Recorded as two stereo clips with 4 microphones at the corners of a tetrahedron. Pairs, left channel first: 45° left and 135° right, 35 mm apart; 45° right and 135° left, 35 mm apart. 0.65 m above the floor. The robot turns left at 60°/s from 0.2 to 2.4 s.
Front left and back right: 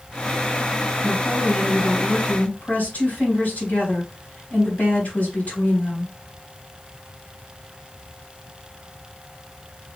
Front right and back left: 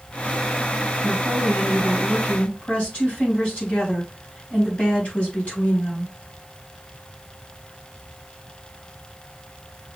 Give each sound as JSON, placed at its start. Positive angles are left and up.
{"t": 1.0, "sound": "a woman speaking", "azimuth_deg": 85, "distance_m": 4.0}